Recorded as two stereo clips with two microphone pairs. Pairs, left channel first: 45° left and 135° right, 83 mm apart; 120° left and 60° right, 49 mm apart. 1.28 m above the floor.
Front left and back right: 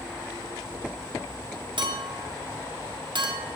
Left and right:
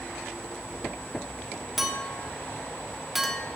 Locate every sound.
1.8 s a clink: 140° right, 1.6 m